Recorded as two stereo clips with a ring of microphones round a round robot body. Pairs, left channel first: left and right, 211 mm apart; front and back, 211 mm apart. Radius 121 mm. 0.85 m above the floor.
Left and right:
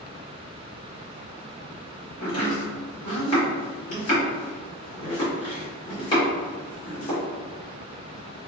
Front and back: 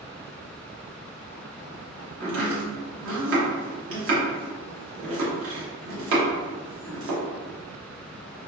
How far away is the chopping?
About 1.1 m.